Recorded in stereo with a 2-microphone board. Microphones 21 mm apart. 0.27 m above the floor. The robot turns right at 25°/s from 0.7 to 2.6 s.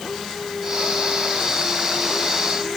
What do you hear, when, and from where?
Only background noise.